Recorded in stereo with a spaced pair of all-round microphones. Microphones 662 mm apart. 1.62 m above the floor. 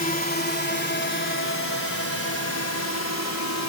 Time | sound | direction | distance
0.0 | a drone | 10° left (ahead or behind) | ?